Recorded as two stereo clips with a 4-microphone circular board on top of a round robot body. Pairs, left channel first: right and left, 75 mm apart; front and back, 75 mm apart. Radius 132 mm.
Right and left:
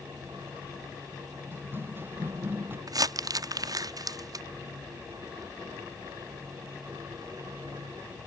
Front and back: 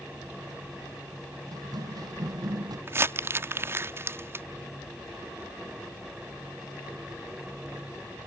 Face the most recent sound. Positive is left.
turn(degrees=120)